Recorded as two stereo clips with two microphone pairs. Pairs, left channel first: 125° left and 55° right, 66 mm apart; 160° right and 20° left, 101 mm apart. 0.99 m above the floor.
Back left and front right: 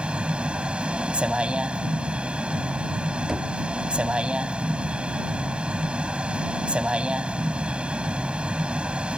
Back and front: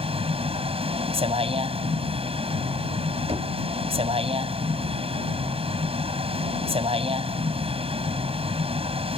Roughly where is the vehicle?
Ahead.